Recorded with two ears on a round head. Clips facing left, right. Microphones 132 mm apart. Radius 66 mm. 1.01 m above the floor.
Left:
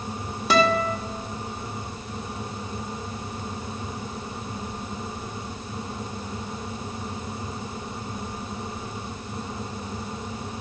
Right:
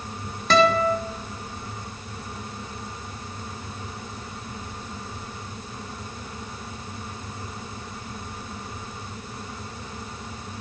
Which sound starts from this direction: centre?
A guitar, at 0.5 s.